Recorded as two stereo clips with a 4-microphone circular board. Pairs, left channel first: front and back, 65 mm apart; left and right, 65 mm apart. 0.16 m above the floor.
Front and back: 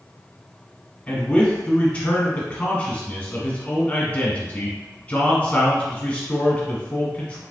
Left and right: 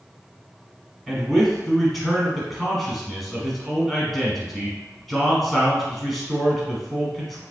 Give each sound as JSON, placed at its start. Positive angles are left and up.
{"t": 1.1, "sound": "a man speaking", "azimuth_deg": 5, "distance_m": 1.1}